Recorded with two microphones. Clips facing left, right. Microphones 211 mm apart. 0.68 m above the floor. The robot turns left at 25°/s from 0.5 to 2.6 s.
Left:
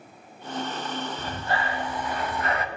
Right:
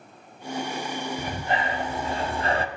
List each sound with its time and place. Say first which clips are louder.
1.2 s breathing: right 3 dB; 30° right, 0.5 m; by 2.7 s 65° right, 0.5 m